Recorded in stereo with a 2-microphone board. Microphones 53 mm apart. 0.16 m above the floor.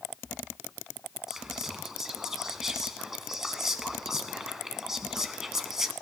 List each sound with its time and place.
1.3 s whispering: 10° right (ahead or behind), 1.1 m